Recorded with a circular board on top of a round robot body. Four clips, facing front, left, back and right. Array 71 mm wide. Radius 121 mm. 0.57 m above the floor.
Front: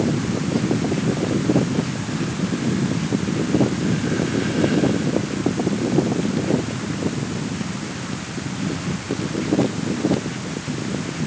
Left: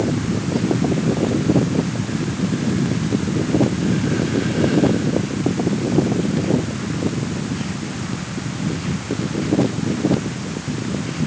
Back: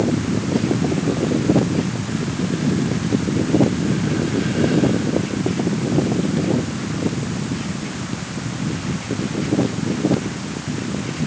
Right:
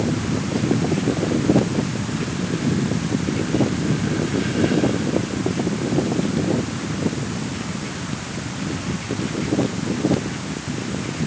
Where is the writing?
No writing in this recording.